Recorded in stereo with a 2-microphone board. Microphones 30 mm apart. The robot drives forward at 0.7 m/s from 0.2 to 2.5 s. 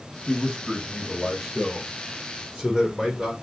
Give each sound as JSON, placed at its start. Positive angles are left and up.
{"t": 0.3, "sound": "a man speaking", "side_deg": 5, "distance_m": 2.5}